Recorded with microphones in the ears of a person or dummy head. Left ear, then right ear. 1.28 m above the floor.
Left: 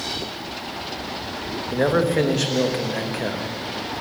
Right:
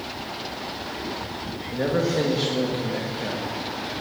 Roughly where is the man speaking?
Left.